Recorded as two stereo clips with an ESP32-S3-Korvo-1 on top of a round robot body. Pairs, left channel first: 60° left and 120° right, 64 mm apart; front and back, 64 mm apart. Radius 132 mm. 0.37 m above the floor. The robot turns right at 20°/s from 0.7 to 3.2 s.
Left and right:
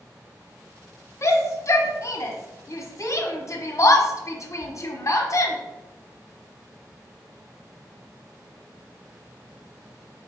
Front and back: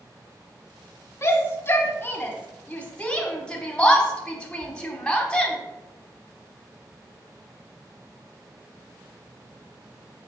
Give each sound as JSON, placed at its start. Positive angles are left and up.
{"t": 1.2, "sound": "a shout", "azimuth_deg": 35, "distance_m": 1.1}